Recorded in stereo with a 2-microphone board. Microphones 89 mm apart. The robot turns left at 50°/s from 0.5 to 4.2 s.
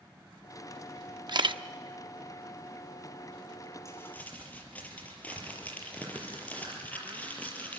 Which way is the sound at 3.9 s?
35° left (ahead or behind).